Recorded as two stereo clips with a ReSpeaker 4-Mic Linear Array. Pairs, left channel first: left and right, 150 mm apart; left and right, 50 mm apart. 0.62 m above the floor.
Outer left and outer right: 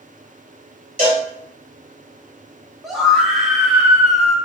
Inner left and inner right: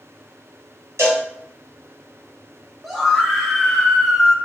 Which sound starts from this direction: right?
A cowbell, at 1.0 s.